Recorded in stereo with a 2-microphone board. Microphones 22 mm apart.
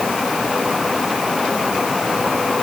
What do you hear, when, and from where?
Only background noise.